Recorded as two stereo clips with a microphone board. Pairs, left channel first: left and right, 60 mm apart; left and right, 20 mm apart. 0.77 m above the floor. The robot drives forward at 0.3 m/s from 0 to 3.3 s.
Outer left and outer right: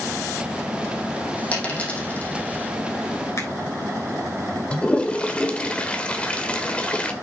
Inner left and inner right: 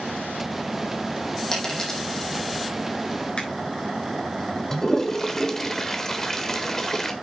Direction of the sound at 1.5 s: 20° left (ahead or behind).